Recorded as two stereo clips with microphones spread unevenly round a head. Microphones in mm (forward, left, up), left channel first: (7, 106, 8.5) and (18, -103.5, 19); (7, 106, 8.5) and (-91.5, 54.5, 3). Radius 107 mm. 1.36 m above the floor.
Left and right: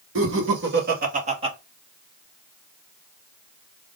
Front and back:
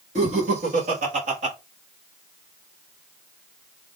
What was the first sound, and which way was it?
Laughter, 120° right.